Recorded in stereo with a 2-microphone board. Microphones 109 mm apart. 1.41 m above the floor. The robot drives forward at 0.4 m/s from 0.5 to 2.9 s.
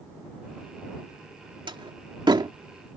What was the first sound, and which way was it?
A door slam, 50° right (ahead or behind).